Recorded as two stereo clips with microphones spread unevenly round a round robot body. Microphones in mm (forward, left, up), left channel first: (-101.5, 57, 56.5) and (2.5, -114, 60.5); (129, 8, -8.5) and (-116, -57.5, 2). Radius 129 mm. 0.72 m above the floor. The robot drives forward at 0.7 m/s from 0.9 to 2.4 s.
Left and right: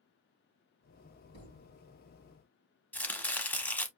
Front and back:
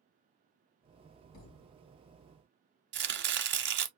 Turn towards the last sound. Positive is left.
turn(degrees=-160)